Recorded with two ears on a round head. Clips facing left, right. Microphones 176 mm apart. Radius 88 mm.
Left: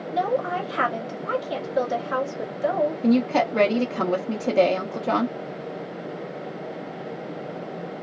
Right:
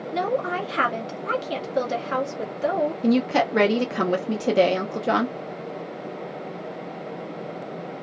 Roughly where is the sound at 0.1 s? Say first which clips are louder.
Left 1 dB; right.